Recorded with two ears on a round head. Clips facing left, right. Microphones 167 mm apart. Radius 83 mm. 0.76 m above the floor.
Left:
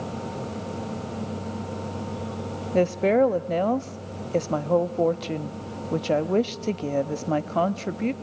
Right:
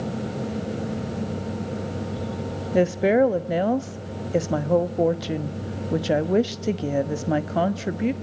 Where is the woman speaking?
10° right (ahead or behind), 0.9 m.